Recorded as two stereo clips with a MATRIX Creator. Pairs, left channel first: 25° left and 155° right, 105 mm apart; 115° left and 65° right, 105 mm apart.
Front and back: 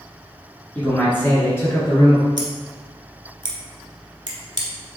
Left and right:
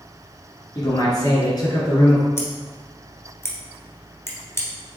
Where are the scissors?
170° left, 1.2 m.